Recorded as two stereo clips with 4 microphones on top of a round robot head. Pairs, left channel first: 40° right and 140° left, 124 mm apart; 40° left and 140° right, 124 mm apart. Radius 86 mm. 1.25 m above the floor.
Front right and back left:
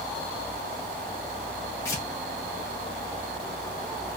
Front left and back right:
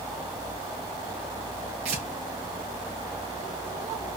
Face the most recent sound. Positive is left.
turn(degrees=-105)